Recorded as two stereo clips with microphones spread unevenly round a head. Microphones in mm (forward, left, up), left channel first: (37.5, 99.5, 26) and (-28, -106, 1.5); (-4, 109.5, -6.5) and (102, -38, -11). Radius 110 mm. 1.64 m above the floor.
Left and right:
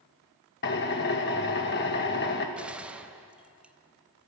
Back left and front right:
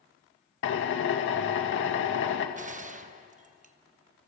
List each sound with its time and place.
0.6 s a drill: 115° left, 2 m
2.6 s a gunshot: 20° right, 1.0 m